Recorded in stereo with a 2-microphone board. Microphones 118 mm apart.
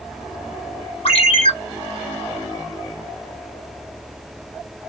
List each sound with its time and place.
1.1 s a ringtone: 55° left (ahead or behind), 3 m